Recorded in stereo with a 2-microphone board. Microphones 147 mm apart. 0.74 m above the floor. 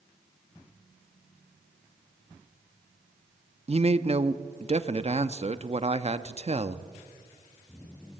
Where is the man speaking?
45° right (ahead or behind), 0.7 m.